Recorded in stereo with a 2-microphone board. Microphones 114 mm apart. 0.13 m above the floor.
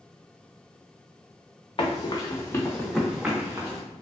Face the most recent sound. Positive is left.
turn(degrees=-25)  # may be behind; listen again after turning